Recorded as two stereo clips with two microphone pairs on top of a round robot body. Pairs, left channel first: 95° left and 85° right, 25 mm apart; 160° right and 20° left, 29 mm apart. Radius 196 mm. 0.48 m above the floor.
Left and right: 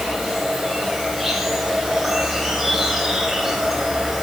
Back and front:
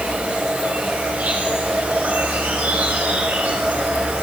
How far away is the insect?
About 3 m.